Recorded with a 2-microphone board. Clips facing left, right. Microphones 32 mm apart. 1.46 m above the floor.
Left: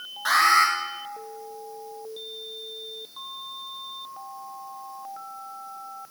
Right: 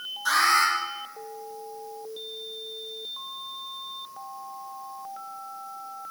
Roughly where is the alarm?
Left.